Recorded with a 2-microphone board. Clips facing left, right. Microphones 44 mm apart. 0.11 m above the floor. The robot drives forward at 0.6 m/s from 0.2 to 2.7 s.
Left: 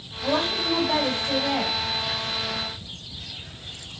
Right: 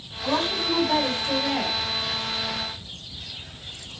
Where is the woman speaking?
5° left (ahead or behind), 3.5 m.